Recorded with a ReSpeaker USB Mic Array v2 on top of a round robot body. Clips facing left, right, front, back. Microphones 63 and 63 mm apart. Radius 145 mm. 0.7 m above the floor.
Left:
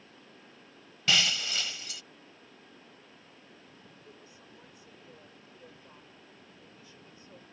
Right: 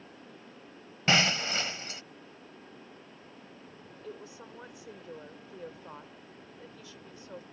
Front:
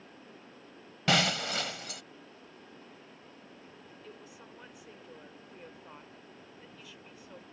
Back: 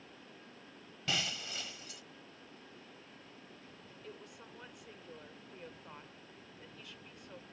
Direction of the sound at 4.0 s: 90° right.